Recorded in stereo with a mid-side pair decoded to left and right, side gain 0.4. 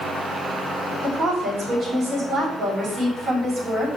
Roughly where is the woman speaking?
Ahead right.